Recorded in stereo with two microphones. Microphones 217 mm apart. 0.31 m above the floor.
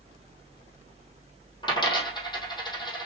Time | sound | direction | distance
1.6 | a dropped coin | 20° left (ahead or behind) | 2.5 m